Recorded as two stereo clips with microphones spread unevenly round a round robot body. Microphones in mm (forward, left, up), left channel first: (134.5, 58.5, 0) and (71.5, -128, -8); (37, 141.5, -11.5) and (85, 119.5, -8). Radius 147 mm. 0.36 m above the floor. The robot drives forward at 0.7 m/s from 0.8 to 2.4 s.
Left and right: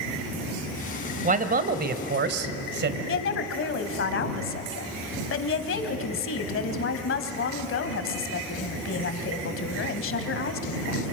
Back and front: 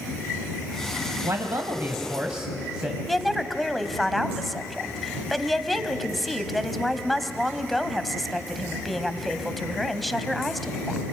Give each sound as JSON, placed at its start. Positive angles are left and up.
{"t": 1.2, "sound": "a man speaking", "azimuth_deg": -70, "distance_m": 1.7}
{"t": 3.1, "sound": "a woman speaking", "azimuth_deg": 65, "distance_m": 1.9}